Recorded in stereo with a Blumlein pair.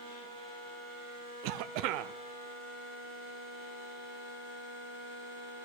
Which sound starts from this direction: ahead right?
A cough, at 1.4 s.